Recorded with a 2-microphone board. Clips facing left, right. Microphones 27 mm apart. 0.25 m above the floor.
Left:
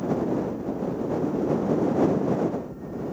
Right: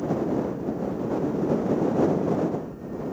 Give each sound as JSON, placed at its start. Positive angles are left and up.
{"t": 0.0, "sound": "a helicopter", "side_deg": -10}